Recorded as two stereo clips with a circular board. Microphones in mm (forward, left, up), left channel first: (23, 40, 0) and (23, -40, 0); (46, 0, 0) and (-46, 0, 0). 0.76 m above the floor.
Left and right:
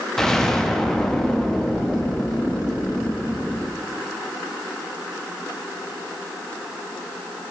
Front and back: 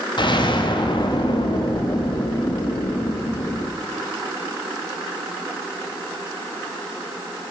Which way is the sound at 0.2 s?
5° left.